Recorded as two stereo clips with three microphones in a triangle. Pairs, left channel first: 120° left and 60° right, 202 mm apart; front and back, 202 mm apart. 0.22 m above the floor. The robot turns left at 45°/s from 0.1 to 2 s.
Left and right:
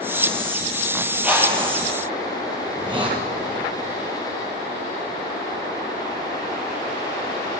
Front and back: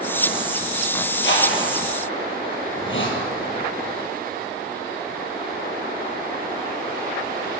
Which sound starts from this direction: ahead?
A hiss, at 2.7 s.